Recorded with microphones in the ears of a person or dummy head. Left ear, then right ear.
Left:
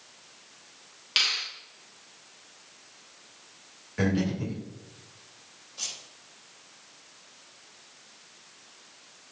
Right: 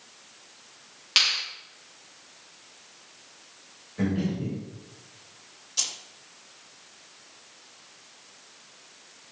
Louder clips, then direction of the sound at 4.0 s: Left 2 dB; 60° left (ahead or behind).